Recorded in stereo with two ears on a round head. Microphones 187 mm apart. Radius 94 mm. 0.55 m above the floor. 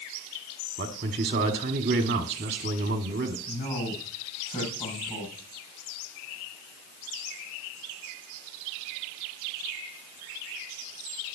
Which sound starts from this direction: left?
A man speaking, at 3.5 s.